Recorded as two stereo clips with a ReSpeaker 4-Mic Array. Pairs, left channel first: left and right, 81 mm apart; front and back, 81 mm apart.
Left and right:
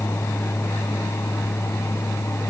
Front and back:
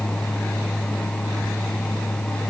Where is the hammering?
I don't hear hammering.